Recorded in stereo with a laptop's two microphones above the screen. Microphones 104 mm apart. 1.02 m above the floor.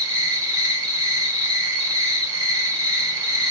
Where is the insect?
35° right (ahead or behind), 0.8 m.